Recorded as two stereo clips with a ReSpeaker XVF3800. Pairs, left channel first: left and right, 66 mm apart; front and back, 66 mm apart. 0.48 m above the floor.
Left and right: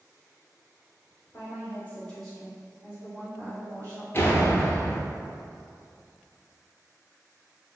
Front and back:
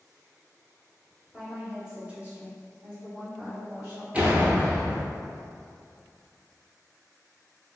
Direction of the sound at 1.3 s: 90° left.